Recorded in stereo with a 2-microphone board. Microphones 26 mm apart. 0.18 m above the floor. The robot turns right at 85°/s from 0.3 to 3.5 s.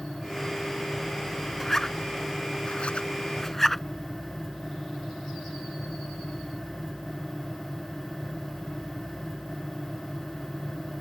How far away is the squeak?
No squeak in this recording.